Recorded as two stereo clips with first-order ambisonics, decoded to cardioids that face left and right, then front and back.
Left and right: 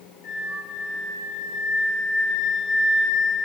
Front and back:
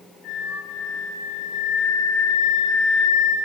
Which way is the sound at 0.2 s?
55° left.